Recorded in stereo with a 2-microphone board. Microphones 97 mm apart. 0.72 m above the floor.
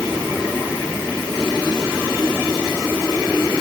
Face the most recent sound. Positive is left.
No sound to turn to.